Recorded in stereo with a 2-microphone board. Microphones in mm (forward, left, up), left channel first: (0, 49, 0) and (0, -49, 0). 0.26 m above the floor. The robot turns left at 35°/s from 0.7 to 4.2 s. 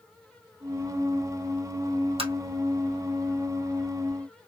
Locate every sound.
2.2 s tapping: 75° right (ahead or behind), 2 m; by 2.3 s 80° right, 2 m